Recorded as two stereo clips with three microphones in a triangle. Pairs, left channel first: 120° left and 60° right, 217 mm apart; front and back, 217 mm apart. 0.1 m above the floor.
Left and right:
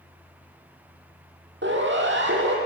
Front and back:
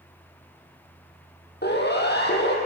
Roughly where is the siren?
Ahead right.